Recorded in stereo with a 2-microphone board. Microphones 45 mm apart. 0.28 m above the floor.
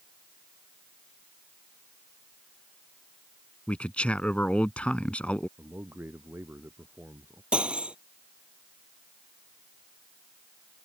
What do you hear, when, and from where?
3.7 s a man speaking: 25° left (ahead or behind)
5.6 s a man speaking: 55° right (ahead or behind)
7.5 s cutlery clinking: 25° right (ahead or behind)